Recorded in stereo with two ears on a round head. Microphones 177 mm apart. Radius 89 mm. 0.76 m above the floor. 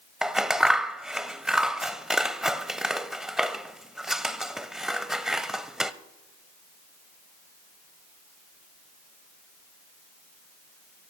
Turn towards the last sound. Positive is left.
turn(degrees=-5)  # may be behind; listen again after turning